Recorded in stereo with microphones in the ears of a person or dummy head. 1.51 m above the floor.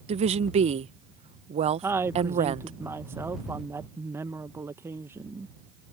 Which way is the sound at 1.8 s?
10° right (ahead or behind).